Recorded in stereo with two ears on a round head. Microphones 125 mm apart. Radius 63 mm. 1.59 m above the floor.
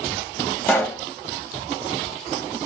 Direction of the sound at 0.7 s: 10° left (ahead or behind).